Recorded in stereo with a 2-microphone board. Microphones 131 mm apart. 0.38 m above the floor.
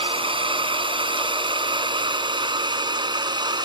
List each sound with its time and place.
0.0 s a drone: 45° right (ahead or behind); by 3.7 s 35° right (ahead or behind)